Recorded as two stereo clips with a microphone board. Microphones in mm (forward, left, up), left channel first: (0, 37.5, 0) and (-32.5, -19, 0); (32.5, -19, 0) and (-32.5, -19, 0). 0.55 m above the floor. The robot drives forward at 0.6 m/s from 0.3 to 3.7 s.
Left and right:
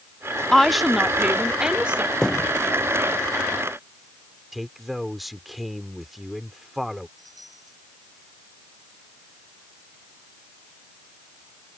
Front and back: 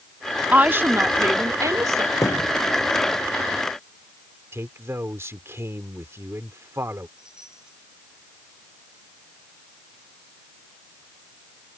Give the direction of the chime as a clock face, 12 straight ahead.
3 o'clock.